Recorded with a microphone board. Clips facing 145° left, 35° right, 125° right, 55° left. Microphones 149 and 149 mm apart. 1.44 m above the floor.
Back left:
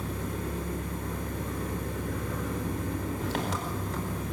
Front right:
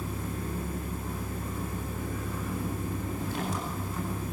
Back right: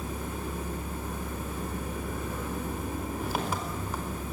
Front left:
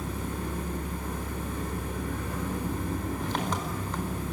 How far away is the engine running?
About 4 m.